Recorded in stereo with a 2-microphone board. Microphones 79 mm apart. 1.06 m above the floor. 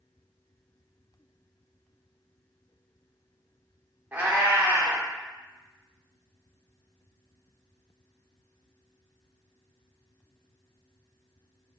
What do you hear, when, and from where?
4.1 s a cat meowing: 20° right (ahead or behind), 0.8 m